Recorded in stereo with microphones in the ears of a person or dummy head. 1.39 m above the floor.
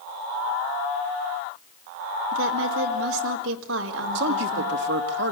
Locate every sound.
2.3 s a woman speaking: 85° right, 4 m
4.2 s a man speaking: 70° right (ahead or behind), 2.5 m